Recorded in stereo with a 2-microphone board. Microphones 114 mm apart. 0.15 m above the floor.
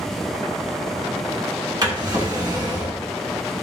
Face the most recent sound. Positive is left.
turn(degrees=-35)  # may be behind; listen again after turning